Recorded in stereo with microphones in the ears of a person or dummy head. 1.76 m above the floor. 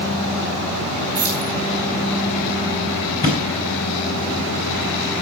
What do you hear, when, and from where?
1.1 s keys jangling: 45° right (ahead or behind), 3 m
3.2 s a thud: 20° right (ahead or behind), 2.5 m